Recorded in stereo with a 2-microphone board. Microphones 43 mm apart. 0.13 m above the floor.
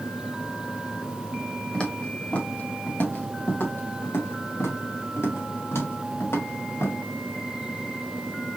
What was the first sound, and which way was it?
Footsteps, 25° left (ahead or behind).